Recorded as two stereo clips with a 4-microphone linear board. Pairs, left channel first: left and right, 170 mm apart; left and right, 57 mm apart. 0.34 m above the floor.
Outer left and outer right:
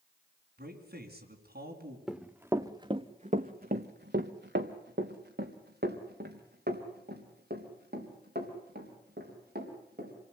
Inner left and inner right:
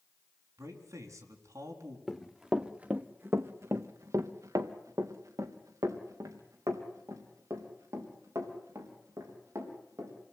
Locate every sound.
0.6 s a man speaking: 70° right (ahead or behind), 3.5 m
2.1 s running footsteps: centre (ahead or behind), 1.8 m; by 10.1 s 60° right (ahead or behind), 7.5 m